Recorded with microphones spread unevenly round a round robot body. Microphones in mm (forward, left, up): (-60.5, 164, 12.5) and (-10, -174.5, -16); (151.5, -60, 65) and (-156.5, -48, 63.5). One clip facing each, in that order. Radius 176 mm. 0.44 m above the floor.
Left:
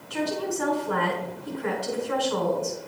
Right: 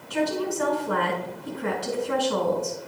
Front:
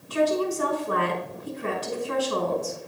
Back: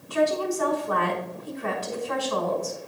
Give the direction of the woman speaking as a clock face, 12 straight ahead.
2 o'clock.